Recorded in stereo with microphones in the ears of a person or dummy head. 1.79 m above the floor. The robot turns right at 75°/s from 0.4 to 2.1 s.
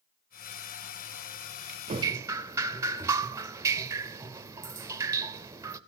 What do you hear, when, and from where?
1.9 s dripping: 35° right (ahead or behind), 0.5 m; by 5.8 s 20° right (ahead or behind), 0.5 m